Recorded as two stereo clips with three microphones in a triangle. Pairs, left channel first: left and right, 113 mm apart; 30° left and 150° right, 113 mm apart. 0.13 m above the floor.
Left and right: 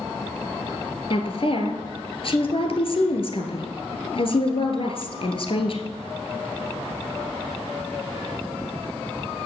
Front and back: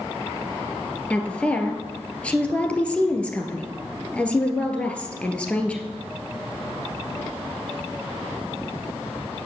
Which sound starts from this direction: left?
A woman speaking, at 1.1 s.